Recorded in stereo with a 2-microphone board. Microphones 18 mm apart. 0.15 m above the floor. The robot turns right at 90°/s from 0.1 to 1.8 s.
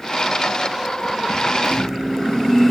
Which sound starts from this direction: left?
A microwave, at 1.6 s.